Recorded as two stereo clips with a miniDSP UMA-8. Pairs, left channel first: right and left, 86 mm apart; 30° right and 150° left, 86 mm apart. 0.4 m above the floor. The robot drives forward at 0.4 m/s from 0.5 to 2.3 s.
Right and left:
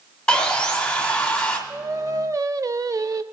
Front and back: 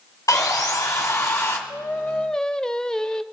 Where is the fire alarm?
I don't hear a fire alarm.